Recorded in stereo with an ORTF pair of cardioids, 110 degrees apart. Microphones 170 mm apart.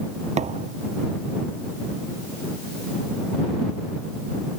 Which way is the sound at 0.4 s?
40° right.